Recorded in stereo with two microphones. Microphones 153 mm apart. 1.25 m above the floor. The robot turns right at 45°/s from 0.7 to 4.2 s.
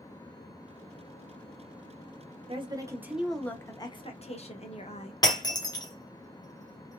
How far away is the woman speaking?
About 0.8 m.